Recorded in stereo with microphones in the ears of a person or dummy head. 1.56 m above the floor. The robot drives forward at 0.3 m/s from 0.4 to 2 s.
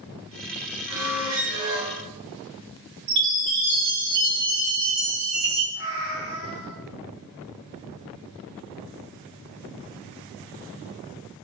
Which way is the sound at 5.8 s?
35° right (ahead or behind).